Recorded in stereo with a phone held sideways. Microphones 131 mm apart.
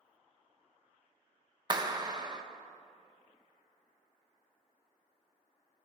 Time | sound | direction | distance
1.7 | a clap | 30° right (ahead or behind) | 0.9 m